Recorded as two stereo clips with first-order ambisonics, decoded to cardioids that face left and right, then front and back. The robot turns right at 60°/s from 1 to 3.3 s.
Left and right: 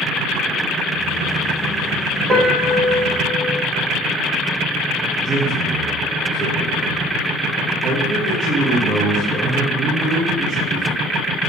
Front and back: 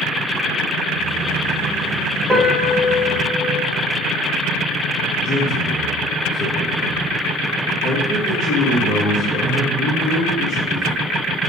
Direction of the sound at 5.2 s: 50° right.